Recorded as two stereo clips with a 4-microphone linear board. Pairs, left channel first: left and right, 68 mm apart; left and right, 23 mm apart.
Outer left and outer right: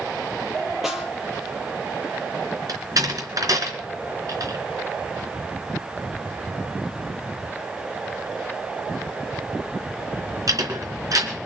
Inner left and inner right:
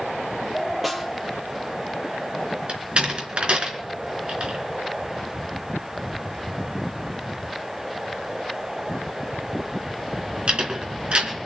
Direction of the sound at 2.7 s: 60° right (ahead or behind).